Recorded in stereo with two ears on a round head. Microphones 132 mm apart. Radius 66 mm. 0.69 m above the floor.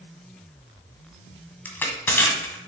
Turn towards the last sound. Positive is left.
turn(degrees=15)  # may be behind; listen again after turning